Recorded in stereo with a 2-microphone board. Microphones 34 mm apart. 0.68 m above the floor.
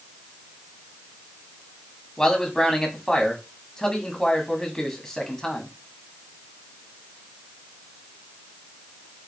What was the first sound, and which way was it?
A man speaking, 10° left (ahead or behind).